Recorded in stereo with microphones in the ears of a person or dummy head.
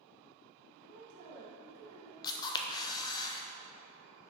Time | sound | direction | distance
0.8 | a woman speaking | 90° right | 1.7 m
2.2 | a camera shutter | 20° left (ahead or behind) | 0.7 m